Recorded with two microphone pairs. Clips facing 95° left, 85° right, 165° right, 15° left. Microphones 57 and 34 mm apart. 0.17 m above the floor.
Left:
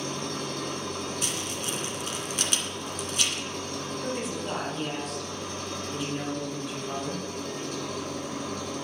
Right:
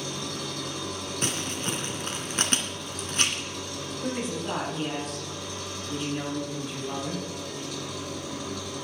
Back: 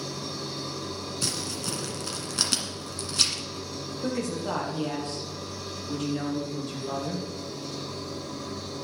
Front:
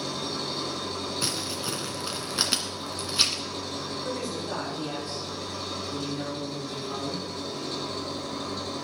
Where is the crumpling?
50° right, 1.9 m.